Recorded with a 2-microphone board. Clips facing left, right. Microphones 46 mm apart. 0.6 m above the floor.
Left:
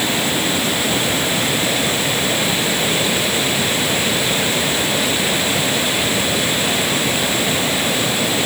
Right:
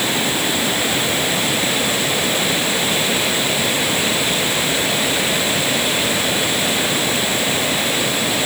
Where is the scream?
I don't hear a scream.